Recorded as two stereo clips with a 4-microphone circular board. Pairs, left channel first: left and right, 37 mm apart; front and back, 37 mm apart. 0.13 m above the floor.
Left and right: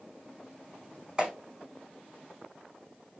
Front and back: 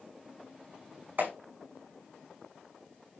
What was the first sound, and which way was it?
A clap, 155° right.